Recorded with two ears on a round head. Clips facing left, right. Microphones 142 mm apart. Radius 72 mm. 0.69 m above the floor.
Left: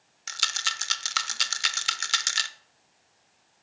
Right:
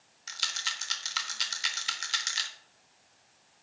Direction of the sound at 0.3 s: 65° left (ahead or behind).